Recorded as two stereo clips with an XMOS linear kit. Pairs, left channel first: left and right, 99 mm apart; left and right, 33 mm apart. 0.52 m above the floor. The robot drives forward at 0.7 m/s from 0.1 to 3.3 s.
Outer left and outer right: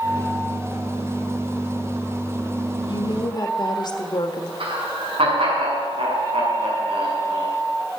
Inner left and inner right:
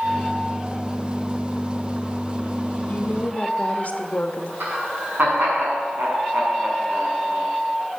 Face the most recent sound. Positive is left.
turn(degrees=-65)  # may be behind; listen again after turning